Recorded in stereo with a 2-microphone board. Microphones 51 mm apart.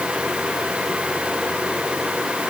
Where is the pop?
I don't hear a pop.